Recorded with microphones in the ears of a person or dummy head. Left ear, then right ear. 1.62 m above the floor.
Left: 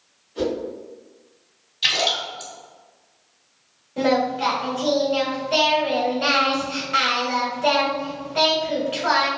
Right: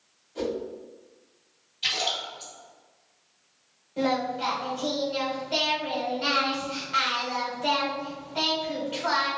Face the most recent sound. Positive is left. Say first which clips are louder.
# left 6 dB
turn(degrees=5)  # may be behind; listen again after turning